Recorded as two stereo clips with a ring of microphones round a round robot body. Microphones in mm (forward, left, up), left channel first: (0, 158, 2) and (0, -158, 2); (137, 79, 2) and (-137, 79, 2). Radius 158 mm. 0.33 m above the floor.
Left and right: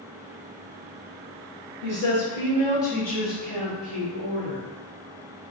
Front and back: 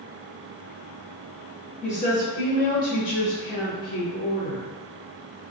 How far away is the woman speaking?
About 1.4 m.